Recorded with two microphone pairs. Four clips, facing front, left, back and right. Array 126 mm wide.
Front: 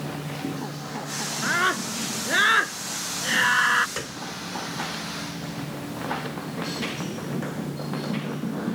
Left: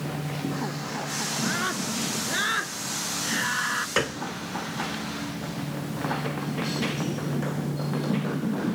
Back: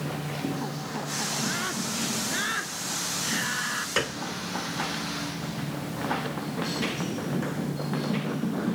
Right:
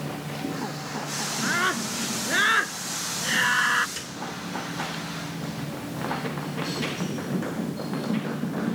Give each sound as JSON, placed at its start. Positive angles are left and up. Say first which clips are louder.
{"t": 1.4, "sound": "a scream", "louder": "right 4 dB, front 11 dB", "azimuth_deg": -15}
{"t": 4.0, "sound": "a piano", "louder": "left 11 dB, back 5 dB", "azimuth_deg": 120}